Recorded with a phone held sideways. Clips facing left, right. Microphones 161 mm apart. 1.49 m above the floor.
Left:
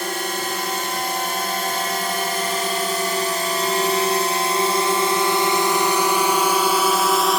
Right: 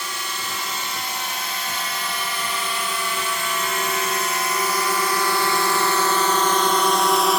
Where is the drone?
55° left (ahead or behind); by 7.4 s centre (ahead or behind).